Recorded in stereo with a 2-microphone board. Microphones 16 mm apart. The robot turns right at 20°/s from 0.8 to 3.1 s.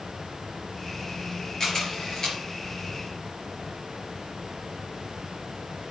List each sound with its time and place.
1.6 s a camera shutter: 30° left (ahead or behind), 4.5 m; by 2.4 s 45° left (ahead or behind), 4.5 m